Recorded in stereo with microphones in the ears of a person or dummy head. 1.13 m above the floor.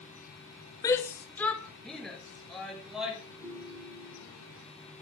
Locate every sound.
0.8 s a shout: 20° left (ahead or behind), 0.6 m; by 3.2 s centre (ahead or behind), 3 m
3.4 s a ringtone: 85° right, 7 m